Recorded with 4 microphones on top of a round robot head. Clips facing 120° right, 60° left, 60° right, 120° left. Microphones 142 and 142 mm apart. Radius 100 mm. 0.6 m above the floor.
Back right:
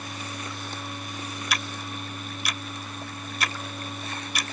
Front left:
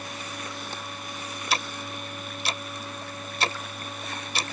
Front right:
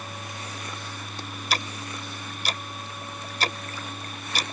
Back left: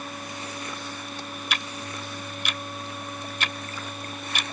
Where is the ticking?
5° right.